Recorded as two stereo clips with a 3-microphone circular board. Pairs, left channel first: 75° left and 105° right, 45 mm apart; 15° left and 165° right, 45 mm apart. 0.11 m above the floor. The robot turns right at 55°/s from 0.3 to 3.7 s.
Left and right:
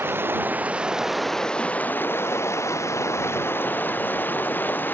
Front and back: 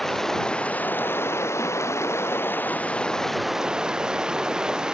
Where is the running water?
65° right; by 5.0 s 125° left.